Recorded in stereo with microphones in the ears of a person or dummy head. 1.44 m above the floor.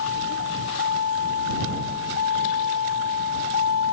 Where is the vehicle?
65° left (ahead or behind).